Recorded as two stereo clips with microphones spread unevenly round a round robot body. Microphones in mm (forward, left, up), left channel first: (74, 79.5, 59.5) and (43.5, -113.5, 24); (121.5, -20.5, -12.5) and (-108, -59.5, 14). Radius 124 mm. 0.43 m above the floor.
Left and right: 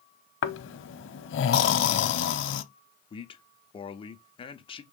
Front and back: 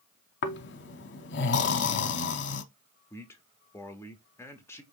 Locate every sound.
0.4 s snoring: 60° left, 0.7 m
3.1 s a man speaking: 40° left, 0.8 m